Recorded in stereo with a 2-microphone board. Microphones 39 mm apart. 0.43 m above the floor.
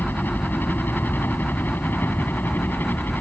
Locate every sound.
0.0 s a helicopter: 60° left (ahead or behind)